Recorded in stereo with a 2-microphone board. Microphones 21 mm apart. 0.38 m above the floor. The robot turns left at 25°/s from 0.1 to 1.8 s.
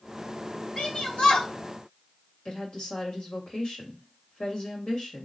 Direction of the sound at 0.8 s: 55° left (ahead or behind).